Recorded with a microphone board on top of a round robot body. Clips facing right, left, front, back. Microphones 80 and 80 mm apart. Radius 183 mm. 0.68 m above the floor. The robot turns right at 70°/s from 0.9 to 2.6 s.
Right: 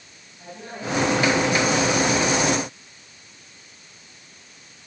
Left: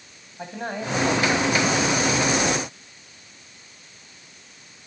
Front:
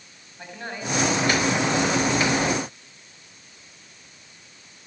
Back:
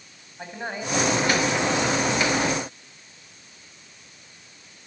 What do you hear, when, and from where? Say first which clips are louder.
0.4 s a man speaking: left 4 dB, back 2 dB; 110° left, 7.5 m; by 2.1 s 170° right, 7.5 m